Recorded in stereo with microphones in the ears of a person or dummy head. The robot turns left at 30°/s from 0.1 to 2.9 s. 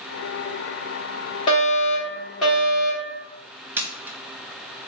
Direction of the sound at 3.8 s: 10° right (ahead or behind).